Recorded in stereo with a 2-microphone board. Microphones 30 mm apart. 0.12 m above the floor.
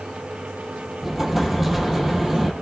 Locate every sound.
1.0 s an explosion: 10° right (ahead or behind), 1.7 m